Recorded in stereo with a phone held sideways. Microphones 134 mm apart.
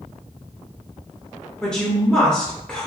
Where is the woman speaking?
5° left (ahead or behind), 0.7 m.